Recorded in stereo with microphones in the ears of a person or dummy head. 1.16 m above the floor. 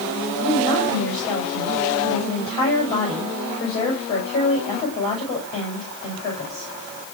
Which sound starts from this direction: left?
A woman speaking, at 0.4 s.